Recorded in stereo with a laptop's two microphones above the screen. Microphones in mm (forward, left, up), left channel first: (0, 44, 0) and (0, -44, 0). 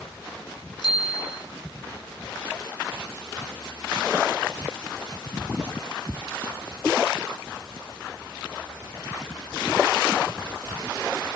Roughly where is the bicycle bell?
Left.